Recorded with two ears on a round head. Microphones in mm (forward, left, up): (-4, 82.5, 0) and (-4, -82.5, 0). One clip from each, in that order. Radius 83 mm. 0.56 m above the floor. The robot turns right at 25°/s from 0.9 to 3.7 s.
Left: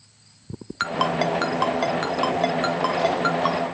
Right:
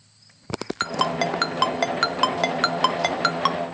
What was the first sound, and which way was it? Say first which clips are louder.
A ringtone: left 1 dB; 15° right (ahead or behind).